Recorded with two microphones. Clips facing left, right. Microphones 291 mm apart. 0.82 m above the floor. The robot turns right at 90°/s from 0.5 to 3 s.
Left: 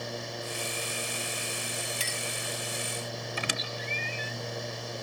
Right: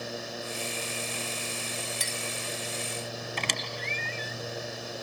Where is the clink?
40° left (ahead or behind); by 2.2 s 20° left (ahead or behind).